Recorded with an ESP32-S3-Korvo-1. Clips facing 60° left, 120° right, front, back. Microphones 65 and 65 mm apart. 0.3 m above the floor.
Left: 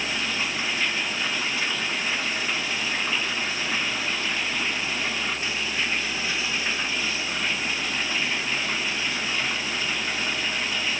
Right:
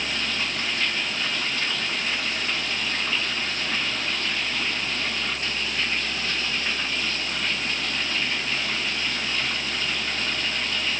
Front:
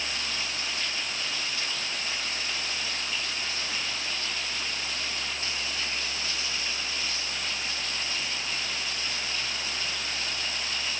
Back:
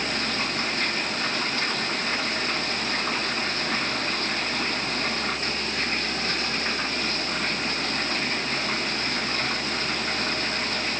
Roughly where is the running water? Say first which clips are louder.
Left 1 dB, back 7 dB; behind left.